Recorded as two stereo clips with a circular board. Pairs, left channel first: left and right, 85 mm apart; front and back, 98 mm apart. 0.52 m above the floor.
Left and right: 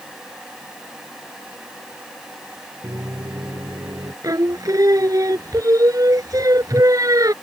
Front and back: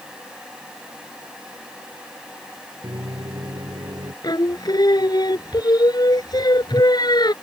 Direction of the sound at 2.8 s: 135° right.